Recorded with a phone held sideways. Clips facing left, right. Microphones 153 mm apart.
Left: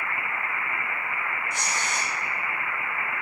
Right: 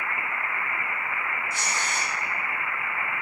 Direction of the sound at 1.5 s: 85° left.